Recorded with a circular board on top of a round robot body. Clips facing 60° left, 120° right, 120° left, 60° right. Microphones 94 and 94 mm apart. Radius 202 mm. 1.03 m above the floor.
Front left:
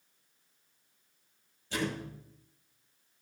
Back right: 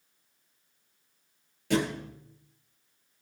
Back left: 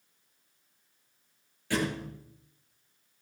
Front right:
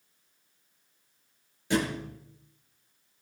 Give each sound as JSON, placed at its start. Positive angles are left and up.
{"t": 1.7, "sound": "a thud", "azimuth_deg": -130, "distance_m": 7.0}